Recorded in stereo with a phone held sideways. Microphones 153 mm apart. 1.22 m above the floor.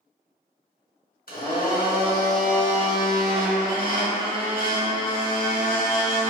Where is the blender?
70° left (ahead or behind), 1.4 m.